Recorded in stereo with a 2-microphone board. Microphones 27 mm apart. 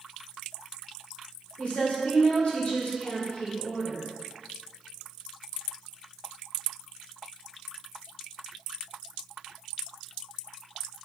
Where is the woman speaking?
50° left (ahead or behind), 2.5 m.